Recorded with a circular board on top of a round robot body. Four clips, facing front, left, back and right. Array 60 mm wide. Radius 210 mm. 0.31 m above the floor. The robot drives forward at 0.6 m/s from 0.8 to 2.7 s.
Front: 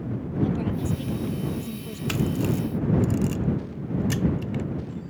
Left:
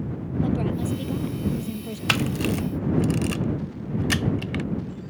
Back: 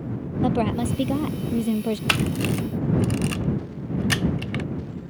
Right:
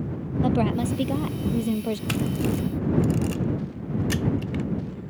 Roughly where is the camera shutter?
Behind left.